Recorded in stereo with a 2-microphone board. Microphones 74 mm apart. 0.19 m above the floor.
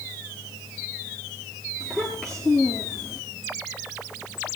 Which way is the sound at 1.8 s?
10° left (ahead or behind).